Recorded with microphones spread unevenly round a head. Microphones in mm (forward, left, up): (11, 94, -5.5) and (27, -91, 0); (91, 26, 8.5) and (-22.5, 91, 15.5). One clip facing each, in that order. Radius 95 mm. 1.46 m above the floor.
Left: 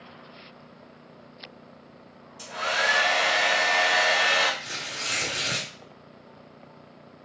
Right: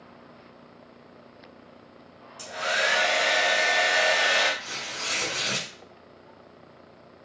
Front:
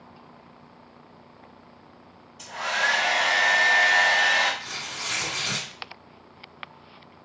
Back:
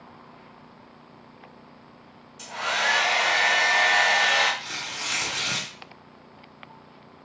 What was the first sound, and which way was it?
A hair dryer, 160° right.